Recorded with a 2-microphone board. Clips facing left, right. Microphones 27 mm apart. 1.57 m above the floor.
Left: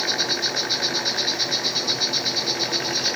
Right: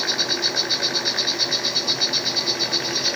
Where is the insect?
15° right (ahead or behind), 3 m.